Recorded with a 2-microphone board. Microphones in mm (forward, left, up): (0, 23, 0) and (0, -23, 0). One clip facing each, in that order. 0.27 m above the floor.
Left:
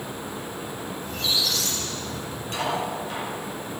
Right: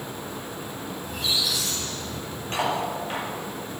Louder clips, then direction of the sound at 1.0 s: Left 1 dB; 15° right (ahead or behind).